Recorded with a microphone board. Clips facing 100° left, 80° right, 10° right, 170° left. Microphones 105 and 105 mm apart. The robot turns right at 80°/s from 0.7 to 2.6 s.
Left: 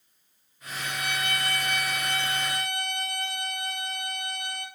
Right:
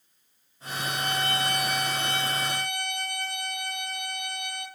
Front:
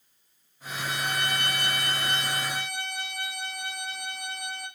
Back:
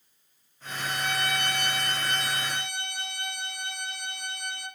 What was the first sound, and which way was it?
A violin, 80° right.